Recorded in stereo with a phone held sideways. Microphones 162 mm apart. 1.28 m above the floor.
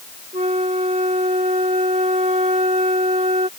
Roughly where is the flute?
Right.